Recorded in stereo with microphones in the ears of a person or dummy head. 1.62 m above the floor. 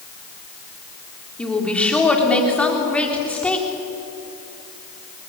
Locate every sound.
1.4 s a woman speaking: centre (ahead or behind), 3.5 m